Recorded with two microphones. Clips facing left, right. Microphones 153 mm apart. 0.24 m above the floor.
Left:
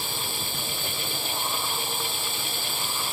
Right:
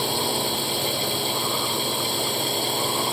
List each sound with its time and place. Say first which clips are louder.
0.0 s a drone: right 10 dB; 70° right (ahead or behind); by 3.1 s 65° right (ahead or behind)